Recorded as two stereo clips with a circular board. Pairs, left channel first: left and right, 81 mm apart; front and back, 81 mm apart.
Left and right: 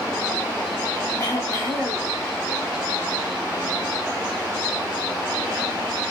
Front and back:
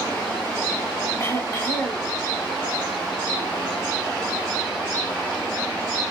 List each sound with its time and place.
1.2 s throat clearing: 40° left, 0.9 m